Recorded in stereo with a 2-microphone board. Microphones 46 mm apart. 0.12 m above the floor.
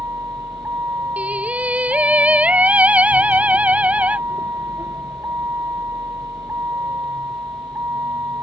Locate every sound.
0.0 s a vehicle: 80° right
1.2 s singing: 30° right (ahead or behind)